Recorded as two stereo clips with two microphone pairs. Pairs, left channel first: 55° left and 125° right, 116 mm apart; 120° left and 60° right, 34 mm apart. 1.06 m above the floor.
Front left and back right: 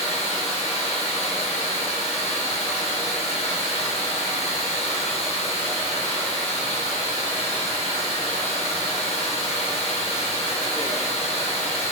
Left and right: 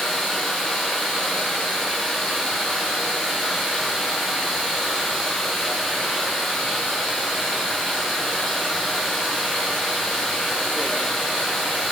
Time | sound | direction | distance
0.0 | running water | 40° left | 3.5 m